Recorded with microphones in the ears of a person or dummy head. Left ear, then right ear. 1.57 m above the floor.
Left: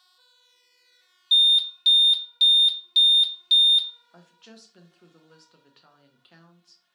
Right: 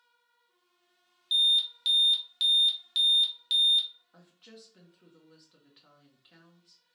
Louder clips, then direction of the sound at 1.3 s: Left 6 dB; centre (ahead or behind).